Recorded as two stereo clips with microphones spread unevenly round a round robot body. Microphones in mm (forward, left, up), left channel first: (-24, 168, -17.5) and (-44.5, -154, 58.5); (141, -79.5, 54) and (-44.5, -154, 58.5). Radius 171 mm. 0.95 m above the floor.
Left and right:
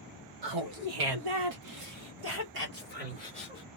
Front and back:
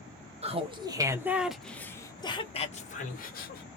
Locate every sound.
0.4 s laughter: 100° right, 1.5 m; by 3.6 s 10° right, 1.8 m